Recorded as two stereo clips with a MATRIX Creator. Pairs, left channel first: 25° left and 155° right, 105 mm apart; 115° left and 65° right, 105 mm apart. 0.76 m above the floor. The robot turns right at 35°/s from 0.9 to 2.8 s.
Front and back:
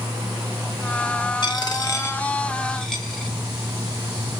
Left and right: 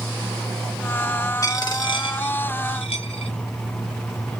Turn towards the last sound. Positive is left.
turn(degrees=110)